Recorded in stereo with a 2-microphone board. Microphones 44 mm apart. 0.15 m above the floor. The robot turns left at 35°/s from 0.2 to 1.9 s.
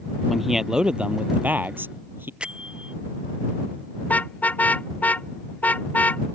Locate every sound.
0.3 s a man speaking: straight ahead; by 2.3 s 60° right
2.4 s a bell: 25° right (ahead or behind)
4.0 s a car horn: 35° left (ahead or behind)